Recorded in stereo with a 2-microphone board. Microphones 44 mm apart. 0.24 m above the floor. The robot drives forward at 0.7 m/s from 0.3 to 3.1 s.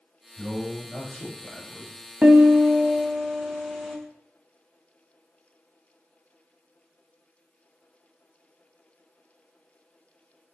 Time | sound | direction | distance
0.4 | a man speaking | 5° right (ahead or behind) | 1.1 m
2.2 | a piano | 30° right (ahead or behind) | 0.7 m